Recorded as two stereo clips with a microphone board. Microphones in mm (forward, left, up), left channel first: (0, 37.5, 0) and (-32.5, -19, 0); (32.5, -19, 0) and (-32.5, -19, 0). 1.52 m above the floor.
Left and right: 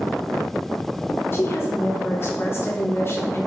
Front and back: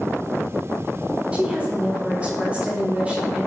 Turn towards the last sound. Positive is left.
turn(degrees=110)